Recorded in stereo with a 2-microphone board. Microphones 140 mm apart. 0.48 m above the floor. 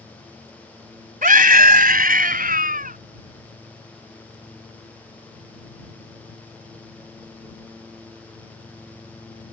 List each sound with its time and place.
1.2 s a scream: 70° right (ahead or behind)